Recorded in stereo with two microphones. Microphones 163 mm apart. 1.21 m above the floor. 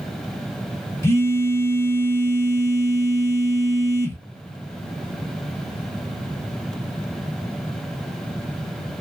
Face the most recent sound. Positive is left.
turn(degrees=15)  # may be behind; listen again after turning